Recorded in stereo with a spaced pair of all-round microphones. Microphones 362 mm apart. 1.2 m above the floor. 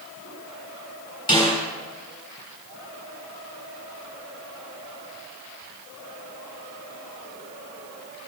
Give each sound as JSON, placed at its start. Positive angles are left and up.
{"t": 1.3, "sound": "a snare drum", "side_deg": 10, "distance_m": 8.0}